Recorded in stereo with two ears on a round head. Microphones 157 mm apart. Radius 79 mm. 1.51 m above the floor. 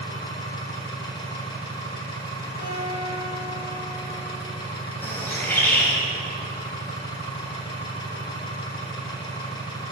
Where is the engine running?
25° left (ahead or behind), 1.3 m.